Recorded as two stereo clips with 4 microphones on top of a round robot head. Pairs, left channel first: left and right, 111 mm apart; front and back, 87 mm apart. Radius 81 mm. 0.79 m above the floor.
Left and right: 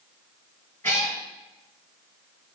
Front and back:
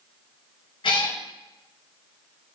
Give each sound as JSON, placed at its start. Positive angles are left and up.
{"t": 0.8, "sound": "a cat meowing", "azimuth_deg": 15, "distance_m": 2.0}